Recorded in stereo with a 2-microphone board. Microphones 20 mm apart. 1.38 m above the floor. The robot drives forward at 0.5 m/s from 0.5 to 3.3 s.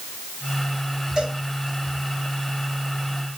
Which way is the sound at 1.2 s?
40° right (ahead or behind).